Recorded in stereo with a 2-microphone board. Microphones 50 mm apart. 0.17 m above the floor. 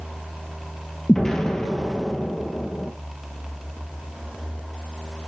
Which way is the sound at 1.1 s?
10° left (ahead or behind).